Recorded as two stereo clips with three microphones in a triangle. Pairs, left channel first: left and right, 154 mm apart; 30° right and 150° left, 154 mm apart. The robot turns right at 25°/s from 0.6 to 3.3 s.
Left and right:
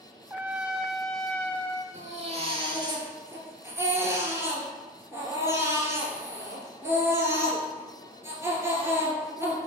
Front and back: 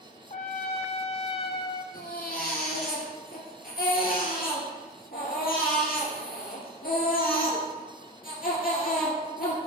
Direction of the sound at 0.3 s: 15° right.